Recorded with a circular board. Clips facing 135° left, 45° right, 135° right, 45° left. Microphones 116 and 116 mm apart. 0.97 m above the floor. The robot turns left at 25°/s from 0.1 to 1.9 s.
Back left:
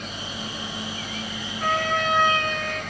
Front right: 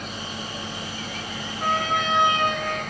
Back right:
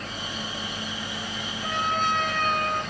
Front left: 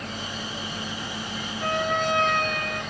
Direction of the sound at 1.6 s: 30° left.